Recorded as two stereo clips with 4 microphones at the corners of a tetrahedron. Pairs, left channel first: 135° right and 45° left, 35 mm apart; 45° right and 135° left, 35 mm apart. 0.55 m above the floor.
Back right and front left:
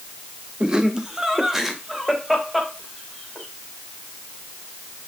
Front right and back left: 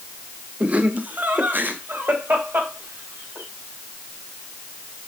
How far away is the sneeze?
No sneeze in this recording.